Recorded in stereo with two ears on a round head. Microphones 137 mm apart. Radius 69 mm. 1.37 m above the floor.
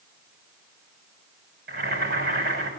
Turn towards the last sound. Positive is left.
turn(degrees=-75)  # may be behind; listen again after turning